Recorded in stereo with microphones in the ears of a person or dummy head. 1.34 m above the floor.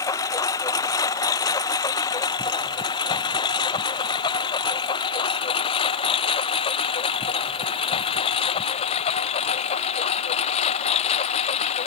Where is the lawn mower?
20° left (ahead or behind); by 11.9 s 35° left (ahead or behind).